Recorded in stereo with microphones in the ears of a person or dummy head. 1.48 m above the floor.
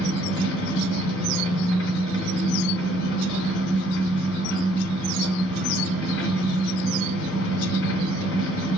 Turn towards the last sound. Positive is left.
turn(degrees=60)  # may be behind; listen again after turning